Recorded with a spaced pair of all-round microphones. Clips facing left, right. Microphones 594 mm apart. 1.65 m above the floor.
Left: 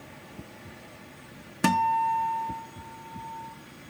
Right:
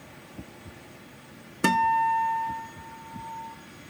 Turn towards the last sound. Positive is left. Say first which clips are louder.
# even
turn(degrees=20)  # may be behind; listen again after turning